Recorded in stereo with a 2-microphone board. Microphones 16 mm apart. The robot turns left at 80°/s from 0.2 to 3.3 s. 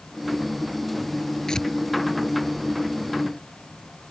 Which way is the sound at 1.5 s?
45° left (ahead or behind).